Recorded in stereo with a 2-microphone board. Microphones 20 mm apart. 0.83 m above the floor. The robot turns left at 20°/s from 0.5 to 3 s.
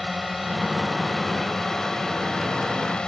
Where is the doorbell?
No doorbell in this recording.